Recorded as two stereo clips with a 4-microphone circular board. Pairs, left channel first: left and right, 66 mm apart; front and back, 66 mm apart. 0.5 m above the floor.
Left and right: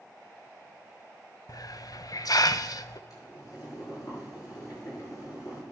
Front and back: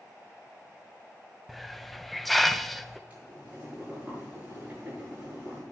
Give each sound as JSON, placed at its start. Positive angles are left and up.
{"t": 1.5, "sound": "a hiss", "azimuth_deg": 85, "distance_m": 0.5}
{"t": 3.1, "sound": "boiling", "azimuth_deg": 110, "distance_m": 7.5}